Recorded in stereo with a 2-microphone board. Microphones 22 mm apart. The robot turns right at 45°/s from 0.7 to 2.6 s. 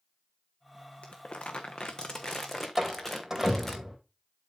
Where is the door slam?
15° right (ahead or behind), 3 m.